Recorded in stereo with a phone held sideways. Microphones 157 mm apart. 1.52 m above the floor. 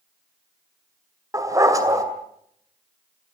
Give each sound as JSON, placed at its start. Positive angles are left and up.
{"t": 1.3, "sound": "a dog barking", "side_deg": -20, "distance_m": 2.5}